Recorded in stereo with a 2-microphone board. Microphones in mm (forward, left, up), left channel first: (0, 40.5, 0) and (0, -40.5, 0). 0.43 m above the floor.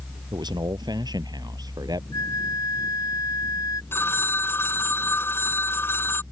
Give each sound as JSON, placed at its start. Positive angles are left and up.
{"t": 0.3, "sound": "a man speaking", "side_deg": -60}
{"t": 2.1, "sound": "a flute", "side_deg": 45}
{"t": 3.9, "sound": "a phone ringing", "side_deg": 25}